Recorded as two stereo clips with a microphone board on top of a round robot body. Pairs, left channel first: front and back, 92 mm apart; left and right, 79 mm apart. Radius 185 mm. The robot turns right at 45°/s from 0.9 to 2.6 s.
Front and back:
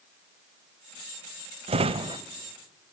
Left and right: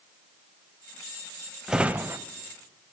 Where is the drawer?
175° right, 0.7 m; by 2.2 s 150° right, 0.7 m.